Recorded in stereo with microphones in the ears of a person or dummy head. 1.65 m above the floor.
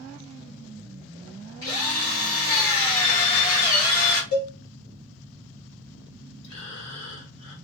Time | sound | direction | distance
1.6 | a drill | 20° left (ahead or behind) | 1.1 m
4.3 | a cowbell | 70° left (ahead or behind) | 0.9 m
6.4 | breathing | 85° left | 1.0 m